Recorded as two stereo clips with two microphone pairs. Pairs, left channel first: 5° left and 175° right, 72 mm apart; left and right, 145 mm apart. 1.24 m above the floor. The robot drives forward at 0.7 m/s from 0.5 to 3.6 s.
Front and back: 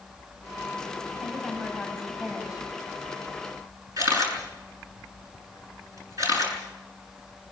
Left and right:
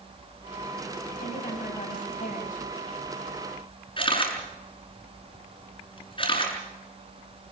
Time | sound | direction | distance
1.2 | a woman speaking | 105° left | 7.5 m
4.0 | a camera shutter | 145° left | 7.5 m